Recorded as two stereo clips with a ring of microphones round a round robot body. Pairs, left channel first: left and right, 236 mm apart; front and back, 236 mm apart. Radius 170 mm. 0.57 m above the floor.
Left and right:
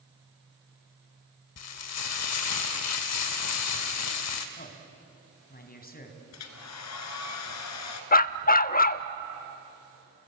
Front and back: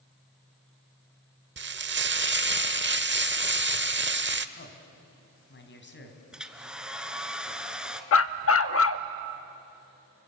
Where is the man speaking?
40° left, 4 m.